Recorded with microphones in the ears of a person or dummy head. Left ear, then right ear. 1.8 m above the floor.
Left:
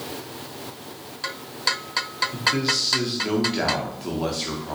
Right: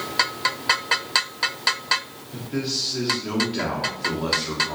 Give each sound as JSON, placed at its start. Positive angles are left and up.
{"t": 2.3, "sound": "a man speaking", "side_deg": 20, "distance_m": 0.8}